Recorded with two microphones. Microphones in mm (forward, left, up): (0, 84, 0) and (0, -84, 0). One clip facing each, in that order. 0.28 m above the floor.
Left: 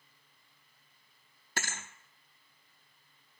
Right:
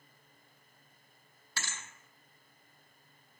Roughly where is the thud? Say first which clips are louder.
Left 5 dB; left.